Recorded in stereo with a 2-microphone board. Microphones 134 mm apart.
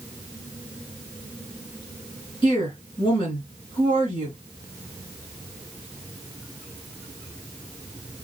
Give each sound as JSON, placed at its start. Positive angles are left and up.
{"t": 2.4, "sound": "a woman speaking", "side_deg": 40, "distance_m": 3.0}